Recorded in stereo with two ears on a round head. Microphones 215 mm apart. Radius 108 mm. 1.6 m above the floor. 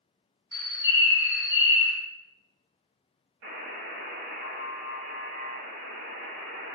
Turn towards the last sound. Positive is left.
turn(degrees=-55)  # may be behind; listen again after turning